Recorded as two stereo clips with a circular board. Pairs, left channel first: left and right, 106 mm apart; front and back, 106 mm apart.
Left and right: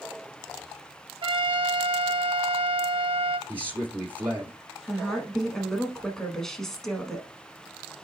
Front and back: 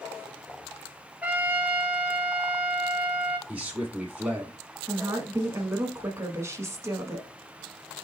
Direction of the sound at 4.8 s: 170° left.